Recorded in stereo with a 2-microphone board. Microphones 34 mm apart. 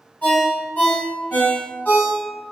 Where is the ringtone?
50° left (ahead or behind), 1.4 m.